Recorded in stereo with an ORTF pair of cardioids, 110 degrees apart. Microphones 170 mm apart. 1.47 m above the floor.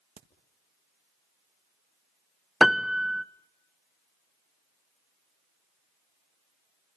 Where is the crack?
40° right, 1.6 m.